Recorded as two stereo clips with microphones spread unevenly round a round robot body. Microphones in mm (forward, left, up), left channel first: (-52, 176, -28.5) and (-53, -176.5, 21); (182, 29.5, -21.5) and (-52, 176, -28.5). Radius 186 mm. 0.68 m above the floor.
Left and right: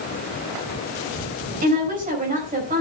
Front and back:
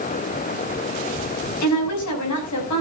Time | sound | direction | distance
1.6 | a woman speaking | 20° right | 5 m